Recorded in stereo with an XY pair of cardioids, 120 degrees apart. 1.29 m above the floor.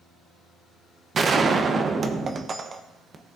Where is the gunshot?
35° right, 0.9 m.